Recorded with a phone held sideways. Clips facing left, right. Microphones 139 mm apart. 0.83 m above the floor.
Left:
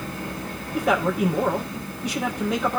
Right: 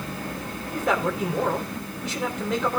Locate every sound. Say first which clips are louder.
0.7 s a man speaking: left 3 dB; centre (ahead or behind), 3 m